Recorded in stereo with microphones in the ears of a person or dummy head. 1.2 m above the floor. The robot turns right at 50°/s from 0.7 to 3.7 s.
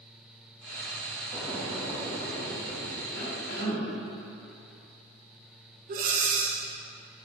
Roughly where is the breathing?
Right.